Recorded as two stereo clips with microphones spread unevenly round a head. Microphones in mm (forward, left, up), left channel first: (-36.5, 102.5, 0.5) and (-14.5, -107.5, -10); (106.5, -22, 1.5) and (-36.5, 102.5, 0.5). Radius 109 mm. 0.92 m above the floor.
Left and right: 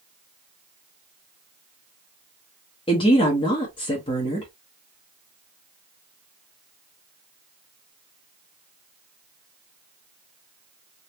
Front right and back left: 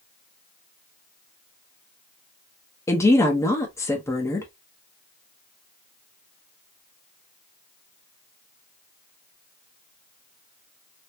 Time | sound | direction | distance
2.9 | a woman speaking | 30° left | 0.8 m